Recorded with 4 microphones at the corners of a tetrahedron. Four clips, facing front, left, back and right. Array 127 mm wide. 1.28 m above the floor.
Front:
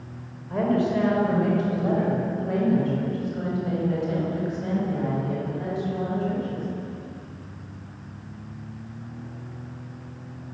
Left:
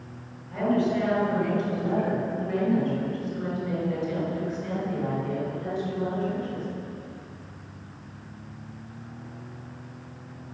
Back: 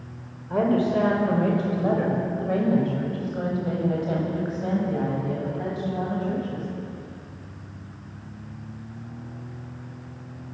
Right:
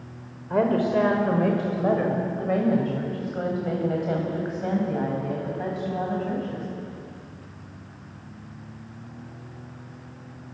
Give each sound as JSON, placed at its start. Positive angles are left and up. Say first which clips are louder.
{"t": 0.5, "sound": "a woman speaking", "louder": "right 3 dB, back 1 dB", "azimuth_deg": -110, "distance_m": 6.0}